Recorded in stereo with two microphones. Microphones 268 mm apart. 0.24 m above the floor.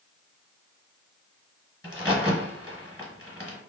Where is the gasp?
No gasp in this recording.